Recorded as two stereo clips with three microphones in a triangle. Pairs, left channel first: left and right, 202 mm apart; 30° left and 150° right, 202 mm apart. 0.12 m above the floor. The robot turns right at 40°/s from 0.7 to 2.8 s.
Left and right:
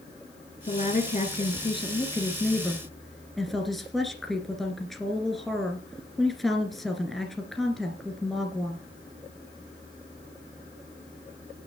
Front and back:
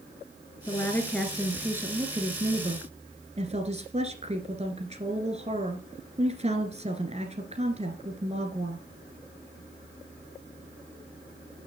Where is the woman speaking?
95° left, 1.8 m; by 8.8 s straight behind, 1.8 m.